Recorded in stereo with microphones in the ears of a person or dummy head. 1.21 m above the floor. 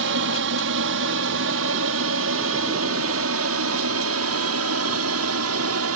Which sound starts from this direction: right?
An aircraft, at 0.0 s.